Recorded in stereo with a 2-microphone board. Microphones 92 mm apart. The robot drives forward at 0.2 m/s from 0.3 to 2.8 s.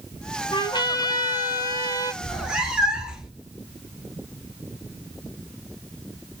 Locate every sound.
0.5 s a trumpet: 50° left (ahead or behind), 0.6 m; by 2.1 s 35° left (ahead or behind), 0.8 m
2.2 s a cat meowing: 10° right (ahead or behind), 0.8 m